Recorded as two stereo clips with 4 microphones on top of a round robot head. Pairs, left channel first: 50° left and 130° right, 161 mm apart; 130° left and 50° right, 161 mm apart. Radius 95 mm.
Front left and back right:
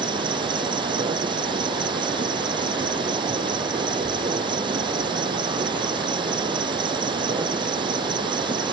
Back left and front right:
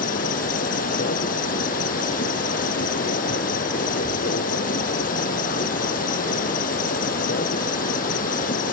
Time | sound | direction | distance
0.0 | an insect | 170° left | ?